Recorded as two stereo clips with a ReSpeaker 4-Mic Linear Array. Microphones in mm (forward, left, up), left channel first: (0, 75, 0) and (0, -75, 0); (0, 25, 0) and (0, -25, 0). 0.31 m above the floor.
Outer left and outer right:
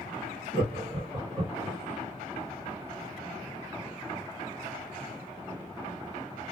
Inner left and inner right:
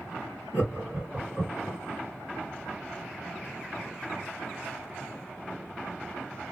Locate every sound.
0.5 s laughter: 35° right (ahead or behind), 2 m